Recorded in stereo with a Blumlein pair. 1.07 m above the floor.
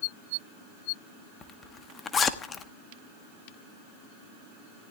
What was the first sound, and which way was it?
A zipper, 20° left.